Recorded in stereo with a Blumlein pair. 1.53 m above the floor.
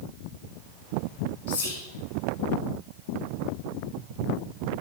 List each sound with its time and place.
1.5 s whispering: 60° left, 1.0 m